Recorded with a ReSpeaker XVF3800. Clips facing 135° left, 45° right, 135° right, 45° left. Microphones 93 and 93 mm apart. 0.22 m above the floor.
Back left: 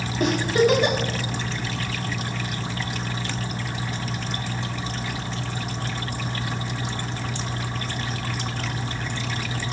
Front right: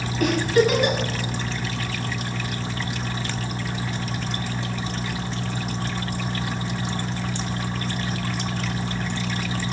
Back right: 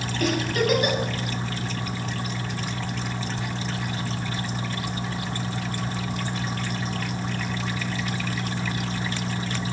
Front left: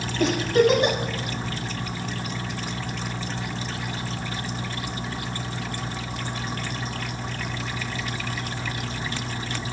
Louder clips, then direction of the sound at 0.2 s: Front right 1 dB, front left 5 dB; 85° left.